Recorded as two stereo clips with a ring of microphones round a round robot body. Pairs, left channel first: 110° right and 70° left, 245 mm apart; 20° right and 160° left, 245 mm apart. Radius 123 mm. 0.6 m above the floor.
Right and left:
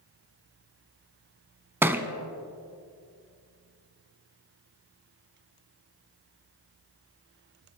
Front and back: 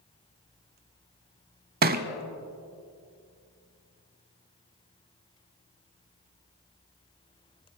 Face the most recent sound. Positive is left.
turn(degrees=145)